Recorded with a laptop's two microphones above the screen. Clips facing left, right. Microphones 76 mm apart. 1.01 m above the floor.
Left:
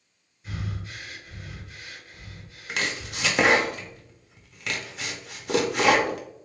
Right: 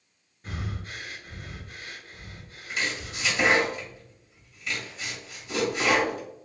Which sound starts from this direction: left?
Chopping, at 2.7 s.